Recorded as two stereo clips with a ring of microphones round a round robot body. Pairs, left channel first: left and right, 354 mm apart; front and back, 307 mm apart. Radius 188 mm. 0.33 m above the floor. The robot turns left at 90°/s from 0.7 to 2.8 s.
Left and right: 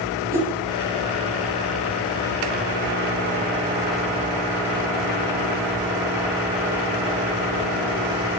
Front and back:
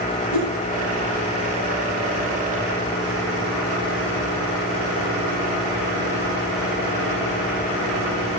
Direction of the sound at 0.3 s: 5° right.